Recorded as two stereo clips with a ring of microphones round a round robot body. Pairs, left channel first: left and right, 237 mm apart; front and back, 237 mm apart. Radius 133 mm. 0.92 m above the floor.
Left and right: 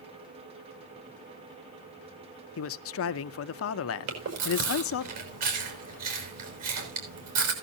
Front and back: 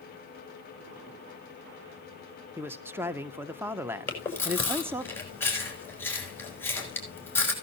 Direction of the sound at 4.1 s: 80° right.